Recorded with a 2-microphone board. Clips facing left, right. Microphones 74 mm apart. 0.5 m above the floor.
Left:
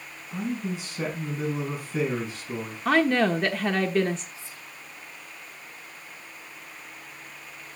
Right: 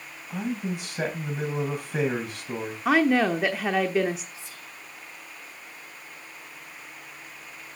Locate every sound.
0.3 s a man speaking: 65° right (ahead or behind), 3.5 m
2.9 s a woman speaking: 10° right (ahead or behind), 0.8 m
4.3 s whispering: 75° right (ahead or behind), 2.5 m